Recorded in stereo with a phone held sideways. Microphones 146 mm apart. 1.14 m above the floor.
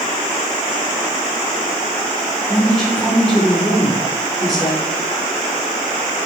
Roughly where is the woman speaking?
Centre.